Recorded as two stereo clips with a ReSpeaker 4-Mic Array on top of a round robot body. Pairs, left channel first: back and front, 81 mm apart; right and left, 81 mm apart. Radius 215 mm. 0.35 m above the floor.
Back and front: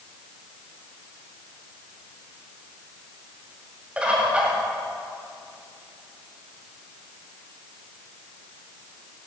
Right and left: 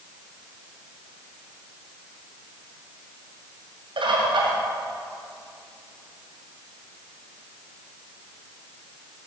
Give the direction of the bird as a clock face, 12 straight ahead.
9 o'clock.